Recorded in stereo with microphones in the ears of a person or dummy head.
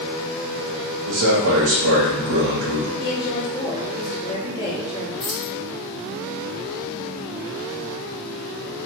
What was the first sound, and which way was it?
A man speaking, 75° right (ahead or behind).